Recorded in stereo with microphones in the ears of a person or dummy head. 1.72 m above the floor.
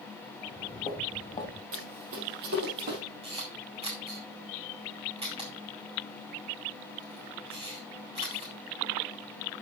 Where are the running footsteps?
55° right (ahead or behind), 3 m; by 3.0 s 50° right (ahead or behind), 3.5 m.